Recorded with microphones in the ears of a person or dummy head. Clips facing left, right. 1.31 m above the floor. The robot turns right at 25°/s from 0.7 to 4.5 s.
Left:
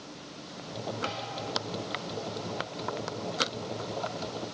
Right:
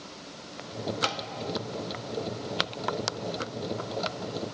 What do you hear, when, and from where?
1.0 s tapping: 60° right (ahead or behind), 0.8 m; by 1.2 s 55° right (ahead or behind), 0.8 m